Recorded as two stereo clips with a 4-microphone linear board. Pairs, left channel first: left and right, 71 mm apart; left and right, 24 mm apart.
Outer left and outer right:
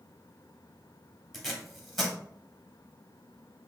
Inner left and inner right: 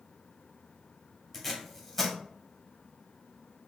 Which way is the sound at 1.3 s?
Centre (ahead or behind).